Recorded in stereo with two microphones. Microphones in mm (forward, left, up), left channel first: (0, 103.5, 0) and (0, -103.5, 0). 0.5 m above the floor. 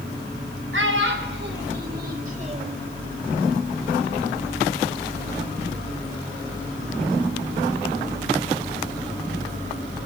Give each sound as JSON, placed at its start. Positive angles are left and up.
{"t": 0.7, "sound": "a child speaking", "side_deg": -75, "distance_m": 2.5}